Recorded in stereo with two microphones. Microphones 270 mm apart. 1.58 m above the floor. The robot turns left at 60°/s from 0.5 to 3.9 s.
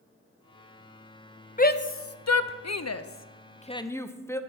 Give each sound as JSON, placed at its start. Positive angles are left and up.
{"t": 1.6, "sound": "a shout", "side_deg": 30, "distance_m": 0.5}